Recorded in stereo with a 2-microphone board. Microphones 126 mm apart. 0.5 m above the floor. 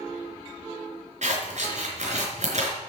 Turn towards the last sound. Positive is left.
turn(degrees=-65)  # may be behind; listen again after turning